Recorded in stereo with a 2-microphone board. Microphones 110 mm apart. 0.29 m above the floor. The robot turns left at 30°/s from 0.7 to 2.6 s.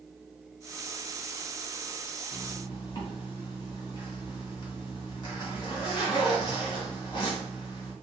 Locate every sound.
2.3 s a zipper: 45° left (ahead or behind), 2 m; by 7.9 s 40° left (ahead or behind), 2 m